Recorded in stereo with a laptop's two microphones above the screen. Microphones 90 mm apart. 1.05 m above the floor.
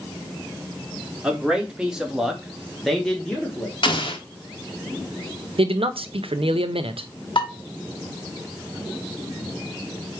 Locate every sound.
1.2 s a man speaking: 10° right (ahead or behind), 1.5 m; by 3.7 s 10° left (ahead or behind), 1.1 m
3.8 s an explosion: 60° left (ahead or behind), 0.9 m
5.6 s a man speaking: 80° right, 0.5 m
7.3 s dishes clattering: 60° left (ahead or behind), 1.1 m